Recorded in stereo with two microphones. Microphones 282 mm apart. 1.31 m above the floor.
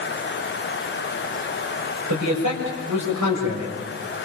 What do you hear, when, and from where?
2.1 s a man speaking: 85° right, 6.5 m